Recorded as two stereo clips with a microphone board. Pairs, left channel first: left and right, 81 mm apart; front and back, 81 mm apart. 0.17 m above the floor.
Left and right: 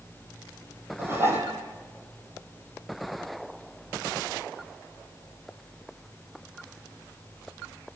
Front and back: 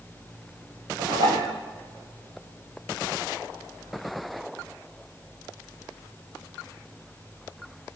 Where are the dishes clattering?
150° right, 4.5 m.